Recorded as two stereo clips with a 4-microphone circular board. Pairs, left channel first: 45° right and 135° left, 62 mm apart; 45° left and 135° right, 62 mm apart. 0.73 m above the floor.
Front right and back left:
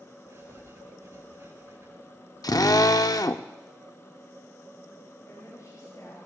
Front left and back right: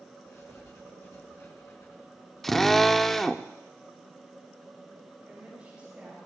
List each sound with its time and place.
0.3 s writing: 90° left, 6 m
2.4 s a drill: 40° right, 0.5 m
5.2 s a woman speaking: 65° right, 4.5 m